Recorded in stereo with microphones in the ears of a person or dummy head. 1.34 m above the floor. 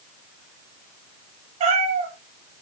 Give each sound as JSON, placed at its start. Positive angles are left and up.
{"t": 1.6, "sound": "a cat meowing", "side_deg": -35, "distance_m": 4.0}